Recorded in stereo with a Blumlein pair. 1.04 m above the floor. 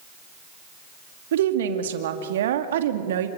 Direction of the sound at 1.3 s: 60° right.